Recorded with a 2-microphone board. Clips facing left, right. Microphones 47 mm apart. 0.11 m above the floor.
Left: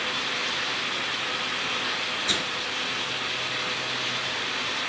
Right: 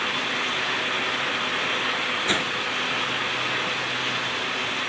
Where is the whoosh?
30° right (ahead or behind), 0.7 m.